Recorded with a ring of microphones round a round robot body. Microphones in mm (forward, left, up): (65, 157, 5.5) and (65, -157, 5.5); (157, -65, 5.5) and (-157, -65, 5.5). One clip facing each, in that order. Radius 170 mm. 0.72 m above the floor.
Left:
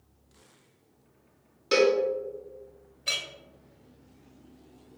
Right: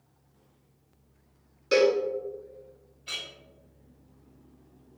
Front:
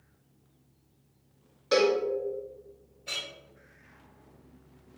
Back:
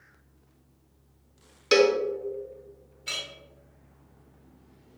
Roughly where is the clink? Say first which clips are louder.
Left 4 dB, back 1 dB; behind left.